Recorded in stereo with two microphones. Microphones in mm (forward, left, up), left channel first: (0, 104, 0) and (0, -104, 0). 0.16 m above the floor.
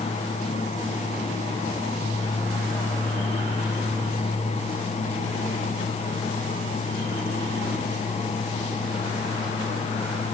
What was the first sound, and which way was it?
Only background noise.